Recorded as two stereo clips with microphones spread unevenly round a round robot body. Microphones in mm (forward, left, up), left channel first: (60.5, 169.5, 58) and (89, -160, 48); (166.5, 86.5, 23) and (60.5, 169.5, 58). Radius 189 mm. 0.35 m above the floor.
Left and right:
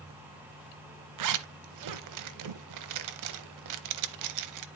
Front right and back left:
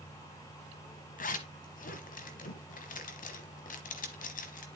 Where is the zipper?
50° right, 0.8 m.